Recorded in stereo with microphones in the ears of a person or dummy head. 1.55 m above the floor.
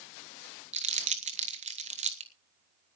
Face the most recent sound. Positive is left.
turn(degrees=-35)  # may be behind; listen again after turning